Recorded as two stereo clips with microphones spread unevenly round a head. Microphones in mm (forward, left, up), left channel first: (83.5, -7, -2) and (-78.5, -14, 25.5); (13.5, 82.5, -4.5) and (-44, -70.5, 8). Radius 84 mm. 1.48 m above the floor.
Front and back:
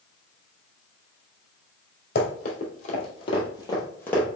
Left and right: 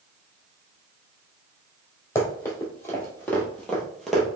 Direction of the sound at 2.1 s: Straight ahead.